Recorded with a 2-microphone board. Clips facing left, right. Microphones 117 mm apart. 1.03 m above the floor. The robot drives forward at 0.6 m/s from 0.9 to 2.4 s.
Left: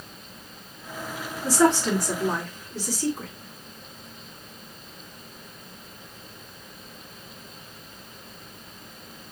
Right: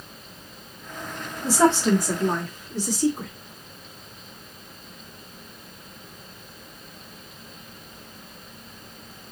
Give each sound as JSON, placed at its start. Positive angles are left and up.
{"t": 1.4, "sound": "a woman speaking", "side_deg": -25, "distance_m": 1.5}